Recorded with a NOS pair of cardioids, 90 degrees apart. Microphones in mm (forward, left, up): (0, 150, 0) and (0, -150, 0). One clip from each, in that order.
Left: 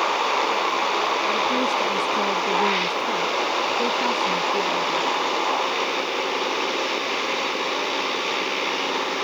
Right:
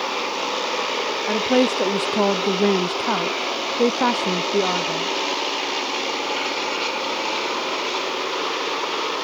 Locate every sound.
1.3 s a woman speaking: 40° right